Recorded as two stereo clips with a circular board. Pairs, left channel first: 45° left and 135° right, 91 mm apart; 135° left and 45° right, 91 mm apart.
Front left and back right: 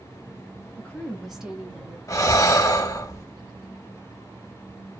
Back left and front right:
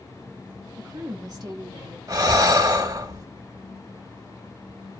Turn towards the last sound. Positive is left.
turn(degrees=0)